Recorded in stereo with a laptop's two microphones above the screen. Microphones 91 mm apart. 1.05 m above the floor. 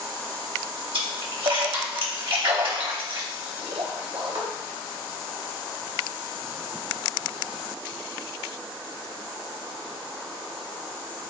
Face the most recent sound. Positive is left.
turn(degrees=-80)